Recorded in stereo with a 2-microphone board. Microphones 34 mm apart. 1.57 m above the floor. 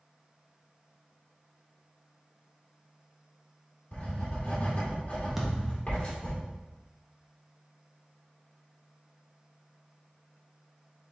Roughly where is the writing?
Left.